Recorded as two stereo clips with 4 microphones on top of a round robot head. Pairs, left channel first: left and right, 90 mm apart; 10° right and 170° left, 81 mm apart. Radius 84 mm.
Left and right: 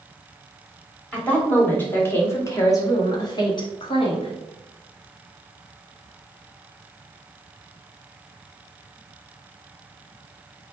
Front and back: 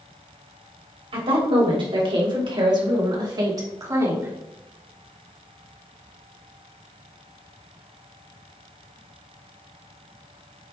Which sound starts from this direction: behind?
A woman speaking, at 1.1 s.